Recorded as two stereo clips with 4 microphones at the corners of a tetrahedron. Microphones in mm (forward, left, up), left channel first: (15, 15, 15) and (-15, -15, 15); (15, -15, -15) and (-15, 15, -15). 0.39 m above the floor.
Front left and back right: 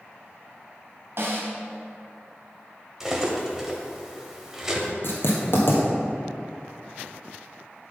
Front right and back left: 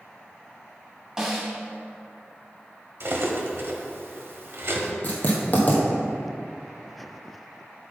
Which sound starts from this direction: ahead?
Writing, at 5.0 s.